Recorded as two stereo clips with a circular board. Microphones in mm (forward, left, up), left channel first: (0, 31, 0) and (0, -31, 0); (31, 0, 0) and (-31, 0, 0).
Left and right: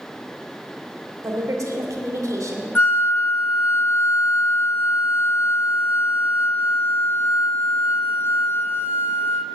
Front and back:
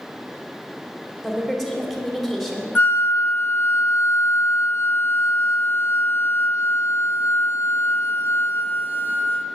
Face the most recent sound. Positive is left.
turn(degrees=45)